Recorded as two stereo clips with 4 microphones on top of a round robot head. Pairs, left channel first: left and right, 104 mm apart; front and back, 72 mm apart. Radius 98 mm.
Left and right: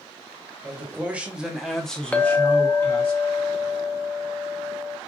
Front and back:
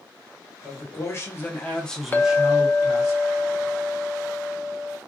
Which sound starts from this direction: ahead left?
A clink, at 2.1 s.